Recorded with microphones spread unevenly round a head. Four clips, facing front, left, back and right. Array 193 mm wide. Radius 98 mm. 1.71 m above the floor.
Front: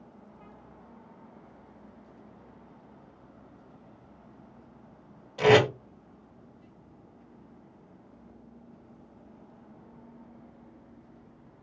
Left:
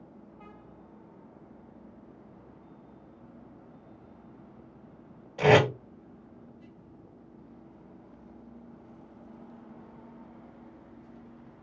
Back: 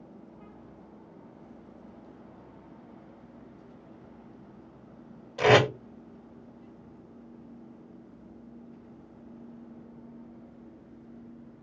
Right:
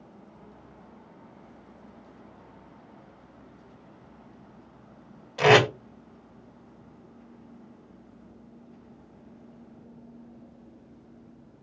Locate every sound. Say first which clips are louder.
5.4 s tape being pulled: right 2 dB, front 1 dB; 30° right, 1.9 m